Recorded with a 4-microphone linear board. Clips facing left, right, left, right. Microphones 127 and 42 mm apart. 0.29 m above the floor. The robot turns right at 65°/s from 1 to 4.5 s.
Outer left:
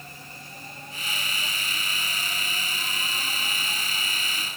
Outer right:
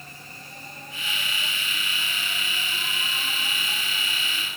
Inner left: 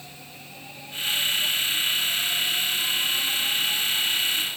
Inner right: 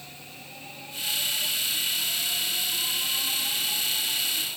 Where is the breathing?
I don't hear breathing.